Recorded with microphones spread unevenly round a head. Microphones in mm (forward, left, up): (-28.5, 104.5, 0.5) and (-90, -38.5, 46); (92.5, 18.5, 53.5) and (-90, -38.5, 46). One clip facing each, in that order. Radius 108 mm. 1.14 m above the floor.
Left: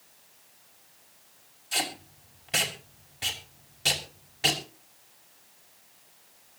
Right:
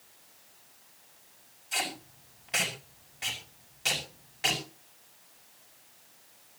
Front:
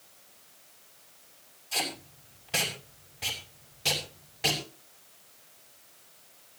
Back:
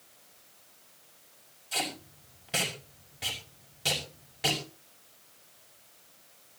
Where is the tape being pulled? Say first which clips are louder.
Left 2 dB, even; 120° left, 6 m.